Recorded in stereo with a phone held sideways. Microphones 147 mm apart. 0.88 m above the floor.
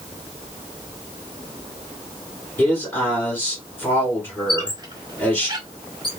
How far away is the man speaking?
About 2.5 m.